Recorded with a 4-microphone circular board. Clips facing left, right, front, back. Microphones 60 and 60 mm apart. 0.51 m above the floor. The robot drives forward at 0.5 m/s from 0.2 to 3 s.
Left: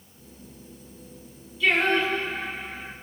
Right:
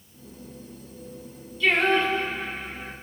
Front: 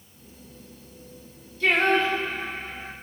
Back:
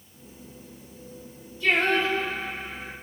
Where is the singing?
5° left, 5.5 m.